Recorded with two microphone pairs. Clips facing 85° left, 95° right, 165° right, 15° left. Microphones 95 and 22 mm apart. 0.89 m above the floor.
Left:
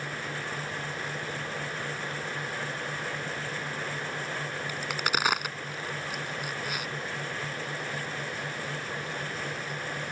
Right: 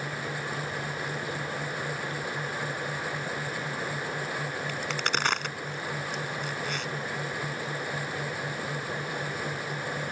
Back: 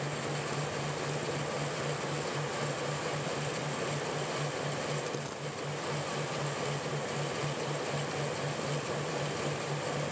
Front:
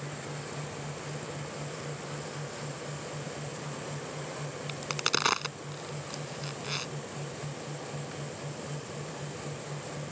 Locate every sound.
4.7 s a crack: 5° left